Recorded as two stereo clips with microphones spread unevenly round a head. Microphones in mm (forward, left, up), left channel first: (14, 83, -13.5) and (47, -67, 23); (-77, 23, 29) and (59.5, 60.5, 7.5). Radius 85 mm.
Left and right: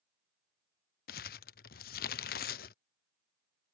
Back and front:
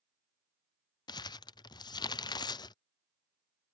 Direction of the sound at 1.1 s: 145° left.